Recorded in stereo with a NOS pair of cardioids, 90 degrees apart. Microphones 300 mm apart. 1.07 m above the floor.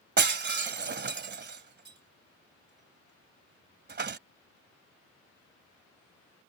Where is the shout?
No shout in this recording.